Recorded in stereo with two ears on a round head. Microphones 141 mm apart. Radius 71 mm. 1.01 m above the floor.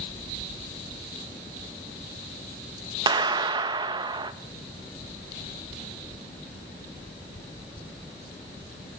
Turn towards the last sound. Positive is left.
turn(degrees=-30)  # may be behind; listen again after turning